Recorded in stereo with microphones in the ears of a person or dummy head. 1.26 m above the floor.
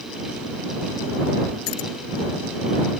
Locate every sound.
1.7 s keys jangling: 70° left (ahead or behind)